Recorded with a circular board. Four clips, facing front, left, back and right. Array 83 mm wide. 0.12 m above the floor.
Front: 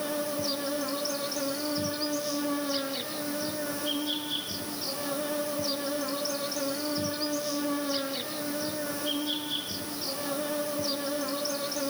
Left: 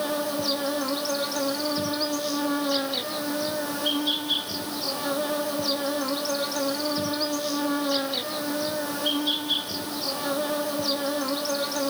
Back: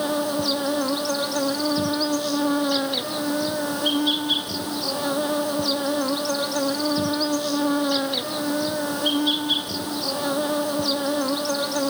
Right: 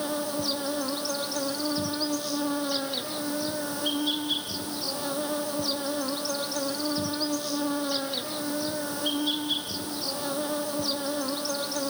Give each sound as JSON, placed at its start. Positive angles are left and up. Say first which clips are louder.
{"t": 0.0, "sound": "an insect", "louder": "left 3 dB, back 8 dB", "azimuth_deg": 165, "distance_m": 1.7}